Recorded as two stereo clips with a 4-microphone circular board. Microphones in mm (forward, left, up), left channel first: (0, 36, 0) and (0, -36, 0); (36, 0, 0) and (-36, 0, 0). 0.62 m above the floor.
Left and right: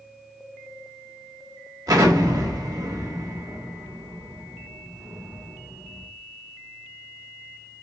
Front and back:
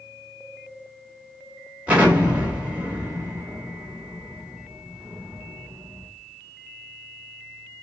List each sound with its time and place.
1.9 s an explosion: 110° right, 3 m